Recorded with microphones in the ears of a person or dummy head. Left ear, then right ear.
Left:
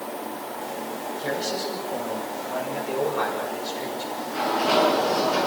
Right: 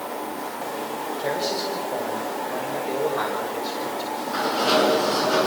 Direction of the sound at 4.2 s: 50° right (ahead or behind).